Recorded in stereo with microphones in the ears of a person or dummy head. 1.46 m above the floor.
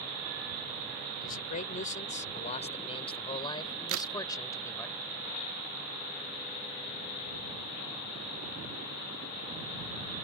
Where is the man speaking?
50° left (ahead or behind); by 4.9 s 15° left (ahead or behind).